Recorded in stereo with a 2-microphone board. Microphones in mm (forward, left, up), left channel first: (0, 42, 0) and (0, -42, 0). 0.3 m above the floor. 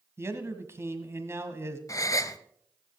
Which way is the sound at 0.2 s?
30° right (ahead or behind).